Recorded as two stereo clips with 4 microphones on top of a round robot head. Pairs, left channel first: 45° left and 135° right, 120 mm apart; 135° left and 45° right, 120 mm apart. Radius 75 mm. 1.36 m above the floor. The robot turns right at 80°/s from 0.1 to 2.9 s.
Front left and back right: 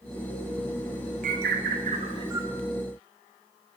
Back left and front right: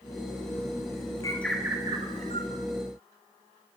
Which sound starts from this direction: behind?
A bird, at 1.2 s.